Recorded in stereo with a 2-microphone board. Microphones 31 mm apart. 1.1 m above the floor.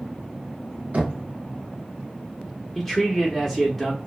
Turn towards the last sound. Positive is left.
turn(degrees=5)  # may be behind; listen again after turning